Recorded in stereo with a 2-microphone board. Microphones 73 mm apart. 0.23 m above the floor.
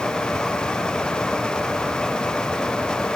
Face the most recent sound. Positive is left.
No sound to turn to.